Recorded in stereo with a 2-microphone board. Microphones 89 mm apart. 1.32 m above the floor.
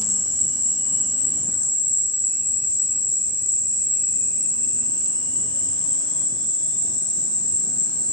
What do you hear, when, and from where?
0.0 s an insect: 60° left (ahead or behind), 0.8 m